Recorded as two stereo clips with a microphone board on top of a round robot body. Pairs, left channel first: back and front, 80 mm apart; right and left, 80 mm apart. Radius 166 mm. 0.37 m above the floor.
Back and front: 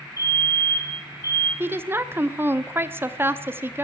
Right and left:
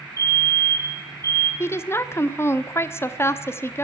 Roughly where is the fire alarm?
Behind left.